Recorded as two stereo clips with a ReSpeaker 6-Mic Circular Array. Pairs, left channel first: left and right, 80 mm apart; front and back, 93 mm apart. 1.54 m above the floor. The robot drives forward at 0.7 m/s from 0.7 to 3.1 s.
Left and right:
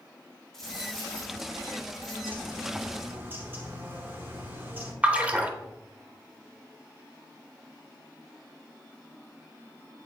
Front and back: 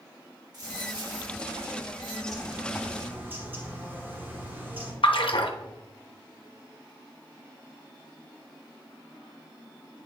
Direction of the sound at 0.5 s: 170° left.